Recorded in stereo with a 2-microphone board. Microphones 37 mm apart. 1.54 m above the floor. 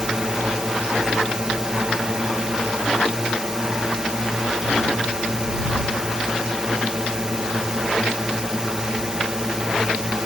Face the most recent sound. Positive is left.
turn(degrees=-20)  # may be behind; listen again after turning